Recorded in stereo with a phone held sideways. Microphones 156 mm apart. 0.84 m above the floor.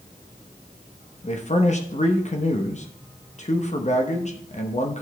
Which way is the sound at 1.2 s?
45° left (ahead or behind).